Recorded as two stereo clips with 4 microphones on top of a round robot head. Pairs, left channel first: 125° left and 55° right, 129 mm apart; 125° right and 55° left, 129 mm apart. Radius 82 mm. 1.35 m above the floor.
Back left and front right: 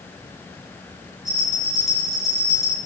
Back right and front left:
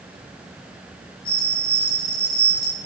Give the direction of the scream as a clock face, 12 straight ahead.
I don't hear a scream.